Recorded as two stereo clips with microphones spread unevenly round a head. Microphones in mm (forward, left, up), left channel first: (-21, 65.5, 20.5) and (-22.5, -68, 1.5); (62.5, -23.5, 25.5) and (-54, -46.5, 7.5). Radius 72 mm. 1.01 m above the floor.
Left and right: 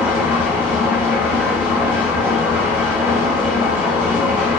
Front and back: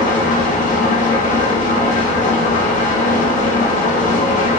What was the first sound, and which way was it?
An engine running, 15° right.